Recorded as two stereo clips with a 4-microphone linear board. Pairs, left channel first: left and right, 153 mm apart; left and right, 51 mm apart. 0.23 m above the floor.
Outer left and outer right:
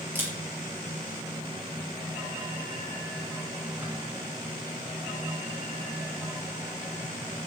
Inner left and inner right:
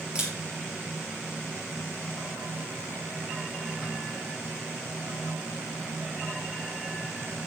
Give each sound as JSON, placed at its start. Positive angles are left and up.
{"t": 0.1, "sound": "a camera shutter", "side_deg": -15, "distance_m": 6.5}